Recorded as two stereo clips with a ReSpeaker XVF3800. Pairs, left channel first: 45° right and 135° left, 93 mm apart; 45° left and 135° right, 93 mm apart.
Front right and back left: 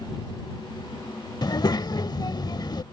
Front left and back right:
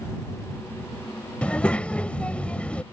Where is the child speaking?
30° right.